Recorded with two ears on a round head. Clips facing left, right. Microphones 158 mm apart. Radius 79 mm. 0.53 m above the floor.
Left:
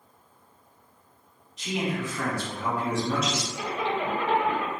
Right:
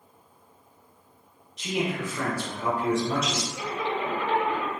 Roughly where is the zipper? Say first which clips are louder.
Left 2 dB; left.